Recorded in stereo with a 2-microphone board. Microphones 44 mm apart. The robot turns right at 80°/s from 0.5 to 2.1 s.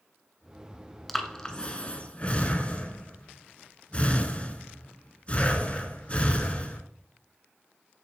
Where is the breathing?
5° left (ahead or behind), 0.7 m; by 6.8 s 30° left (ahead or behind), 0.7 m.